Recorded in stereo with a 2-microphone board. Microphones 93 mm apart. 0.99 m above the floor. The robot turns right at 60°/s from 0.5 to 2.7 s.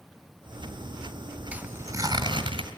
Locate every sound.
1.5 s tearing paper: 165° right, 2.5 m; by 2.7 s 90° right, 2.5 m